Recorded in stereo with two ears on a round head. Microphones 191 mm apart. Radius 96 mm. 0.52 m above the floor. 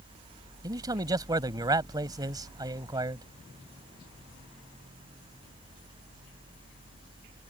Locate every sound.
0.6 s a man speaking: 20° right (ahead or behind)